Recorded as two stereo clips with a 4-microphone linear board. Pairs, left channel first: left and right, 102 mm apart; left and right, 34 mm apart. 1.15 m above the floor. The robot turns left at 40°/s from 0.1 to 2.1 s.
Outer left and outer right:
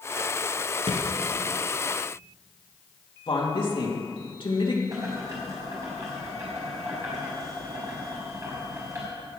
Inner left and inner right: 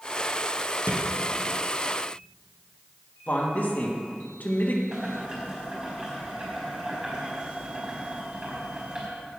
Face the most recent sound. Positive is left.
turn(degrees=-30)  # may be behind; listen again after turning